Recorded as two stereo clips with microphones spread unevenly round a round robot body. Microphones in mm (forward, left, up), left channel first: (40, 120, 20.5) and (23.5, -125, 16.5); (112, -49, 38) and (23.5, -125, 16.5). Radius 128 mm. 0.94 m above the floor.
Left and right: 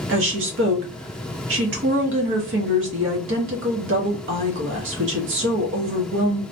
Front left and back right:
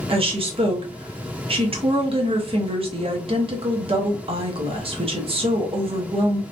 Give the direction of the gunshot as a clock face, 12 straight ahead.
No gunshot in this recording.